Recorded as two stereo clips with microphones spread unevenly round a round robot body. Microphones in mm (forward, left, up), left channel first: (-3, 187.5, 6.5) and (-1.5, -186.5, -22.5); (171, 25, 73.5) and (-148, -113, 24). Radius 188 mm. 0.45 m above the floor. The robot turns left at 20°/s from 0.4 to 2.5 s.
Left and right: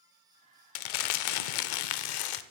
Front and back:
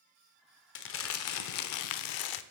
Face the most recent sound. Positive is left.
turn(degrees=50)